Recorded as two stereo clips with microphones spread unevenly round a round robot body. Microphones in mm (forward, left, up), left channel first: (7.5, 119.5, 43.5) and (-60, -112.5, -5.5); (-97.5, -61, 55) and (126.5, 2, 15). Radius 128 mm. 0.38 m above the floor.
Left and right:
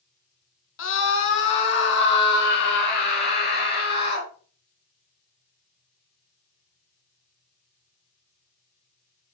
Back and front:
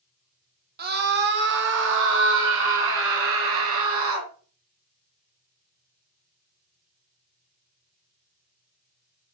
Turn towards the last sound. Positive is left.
turn(degrees=15)